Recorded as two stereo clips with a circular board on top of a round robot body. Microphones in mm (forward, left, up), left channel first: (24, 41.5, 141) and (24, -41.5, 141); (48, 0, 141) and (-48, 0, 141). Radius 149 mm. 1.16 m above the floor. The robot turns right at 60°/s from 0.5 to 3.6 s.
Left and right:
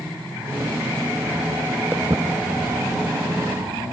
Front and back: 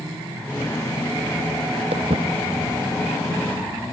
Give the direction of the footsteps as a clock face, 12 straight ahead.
5 o'clock.